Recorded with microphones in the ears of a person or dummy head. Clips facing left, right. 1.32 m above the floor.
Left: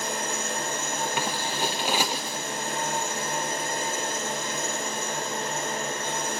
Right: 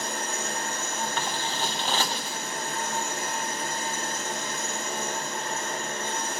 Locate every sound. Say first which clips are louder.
0.0 s an engine running: left 2 dB; 70° left (ahead or behind), 5 m
1.2 s scissors: left 2 dB; 15° left (ahead or behind), 0.5 m